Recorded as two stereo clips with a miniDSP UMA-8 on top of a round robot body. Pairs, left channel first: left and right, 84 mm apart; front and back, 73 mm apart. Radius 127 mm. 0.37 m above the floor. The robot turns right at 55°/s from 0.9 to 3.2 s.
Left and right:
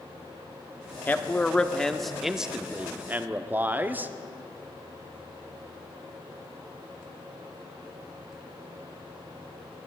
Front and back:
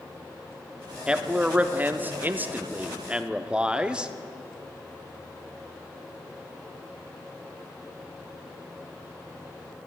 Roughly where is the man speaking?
Behind left.